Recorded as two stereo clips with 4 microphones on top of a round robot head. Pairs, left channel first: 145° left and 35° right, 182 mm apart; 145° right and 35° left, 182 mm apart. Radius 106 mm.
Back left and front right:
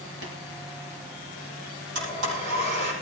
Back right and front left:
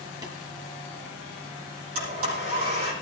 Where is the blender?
10° right, 9.5 m.